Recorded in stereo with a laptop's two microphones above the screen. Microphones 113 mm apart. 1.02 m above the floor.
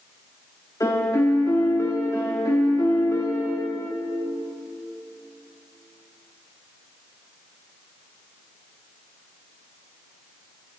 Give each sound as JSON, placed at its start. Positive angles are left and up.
{"t": 0.8, "sound": "a piano", "side_deg": 30, "distance_m": 3.0}